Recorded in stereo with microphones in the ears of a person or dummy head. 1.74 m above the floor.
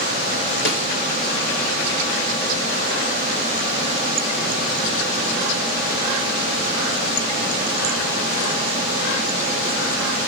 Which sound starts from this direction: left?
A snare drum, at 0.7 s.